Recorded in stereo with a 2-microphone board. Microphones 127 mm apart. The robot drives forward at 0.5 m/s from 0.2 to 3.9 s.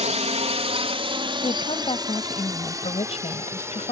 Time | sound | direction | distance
0.0 | a drone | 60° right (ahead or behind) | ?
1.4 | a woman speaking | 45° left (ahead or behind) | ?